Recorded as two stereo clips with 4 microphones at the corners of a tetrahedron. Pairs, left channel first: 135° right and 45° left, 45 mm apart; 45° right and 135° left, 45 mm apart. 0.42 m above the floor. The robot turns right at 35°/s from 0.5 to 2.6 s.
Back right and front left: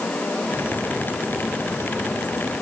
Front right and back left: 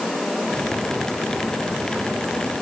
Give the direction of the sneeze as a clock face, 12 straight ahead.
I don't hear a sneeze.